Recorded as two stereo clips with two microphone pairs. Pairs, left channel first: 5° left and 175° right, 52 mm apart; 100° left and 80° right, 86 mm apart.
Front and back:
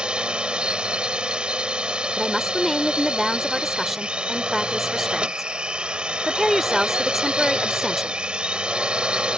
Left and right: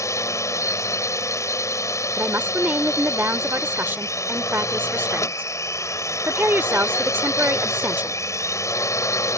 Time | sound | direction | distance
0.0 | a drone | 125° left | ?
2.2 | a woman speaking | 85° right | ?